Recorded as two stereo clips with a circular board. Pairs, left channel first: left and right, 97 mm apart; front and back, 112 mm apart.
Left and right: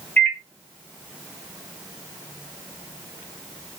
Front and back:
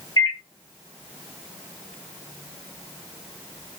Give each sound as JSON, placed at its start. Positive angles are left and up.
{"t": 0.2, "sound": "a microwave", "azimuth_deg": 25, "distance_m": 0.7}